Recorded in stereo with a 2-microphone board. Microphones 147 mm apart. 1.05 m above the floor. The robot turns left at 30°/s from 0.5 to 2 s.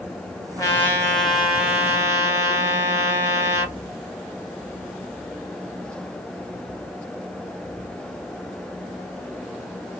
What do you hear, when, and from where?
0.6 s a trumpet: 20° left, 1.3 m; by 3.8 s 20° right, 1.3 m